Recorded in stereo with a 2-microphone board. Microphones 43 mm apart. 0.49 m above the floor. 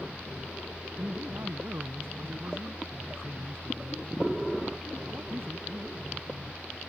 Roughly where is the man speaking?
Right.